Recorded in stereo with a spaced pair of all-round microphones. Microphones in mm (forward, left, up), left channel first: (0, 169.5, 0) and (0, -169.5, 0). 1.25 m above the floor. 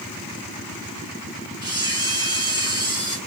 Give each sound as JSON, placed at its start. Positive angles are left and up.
{"t": 1.6, "sound": "a camera shutter", "side_deg": -10, "distance_m": 2.5}